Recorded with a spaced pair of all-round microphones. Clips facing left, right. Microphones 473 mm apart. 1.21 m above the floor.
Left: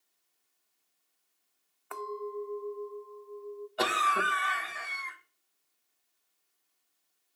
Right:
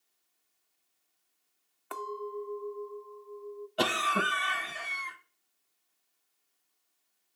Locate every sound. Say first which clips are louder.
1.9 s a clink: left 1 dB; 50° right (ahead or behind), 0.7 m
3.8 s a cough: right 2 dB; 50° right (ahead or behind), 1.2 m